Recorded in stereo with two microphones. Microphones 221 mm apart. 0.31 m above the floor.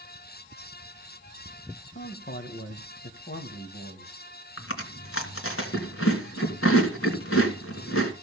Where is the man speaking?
50° left (ahead or behind), 1.8 m.